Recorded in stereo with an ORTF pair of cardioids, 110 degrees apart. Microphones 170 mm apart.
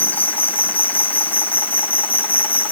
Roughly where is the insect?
Ahead.